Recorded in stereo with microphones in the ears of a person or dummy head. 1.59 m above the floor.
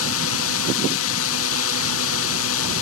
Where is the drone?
75° left (ahead or behind).